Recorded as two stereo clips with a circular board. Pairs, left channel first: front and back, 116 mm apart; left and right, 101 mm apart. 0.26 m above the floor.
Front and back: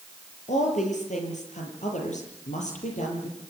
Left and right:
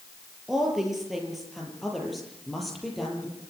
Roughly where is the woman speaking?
Ahead.